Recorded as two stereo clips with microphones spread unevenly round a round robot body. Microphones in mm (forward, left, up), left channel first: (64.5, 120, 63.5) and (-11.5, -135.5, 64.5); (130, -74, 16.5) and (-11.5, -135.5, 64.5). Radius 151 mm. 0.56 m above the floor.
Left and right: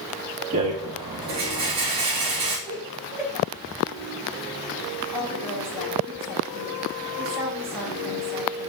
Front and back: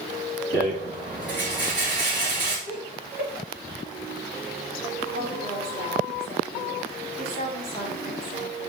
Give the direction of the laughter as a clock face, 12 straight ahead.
7 o'clock.